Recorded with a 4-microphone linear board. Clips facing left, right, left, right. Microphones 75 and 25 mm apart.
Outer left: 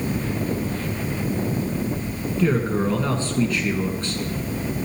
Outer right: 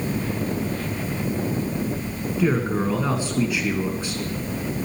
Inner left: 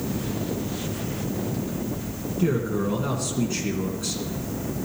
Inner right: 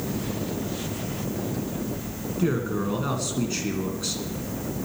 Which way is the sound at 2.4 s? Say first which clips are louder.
Outer left 1 dB, inner left 1 dB; 10° right (ahead or behind).